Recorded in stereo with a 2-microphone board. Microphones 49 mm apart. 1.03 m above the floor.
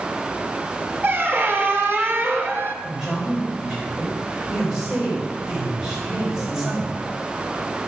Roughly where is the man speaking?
Centre.